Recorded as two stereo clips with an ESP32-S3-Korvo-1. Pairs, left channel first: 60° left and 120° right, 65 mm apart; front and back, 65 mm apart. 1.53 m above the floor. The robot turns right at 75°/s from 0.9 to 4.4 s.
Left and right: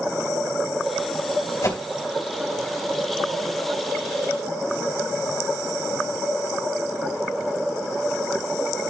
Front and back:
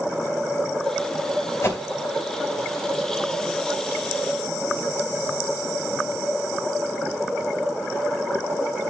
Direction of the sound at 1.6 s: 35° left.